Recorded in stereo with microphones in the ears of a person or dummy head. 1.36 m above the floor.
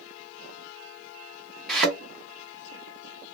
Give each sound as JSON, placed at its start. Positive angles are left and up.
{"t": 1.7, "sound": "a thud", "side_deg": 0, "distance_m": 1.4}